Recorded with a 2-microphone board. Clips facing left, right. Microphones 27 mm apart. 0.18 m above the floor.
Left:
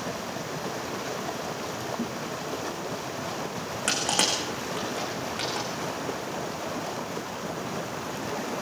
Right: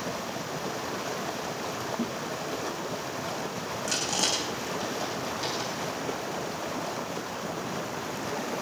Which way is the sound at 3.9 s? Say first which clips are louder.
Left 3 dB; 75° left (ahead or behind).